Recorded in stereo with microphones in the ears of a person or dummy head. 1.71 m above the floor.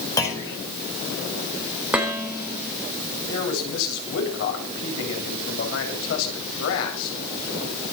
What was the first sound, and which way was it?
A clunk, 15° left (ahead or behind).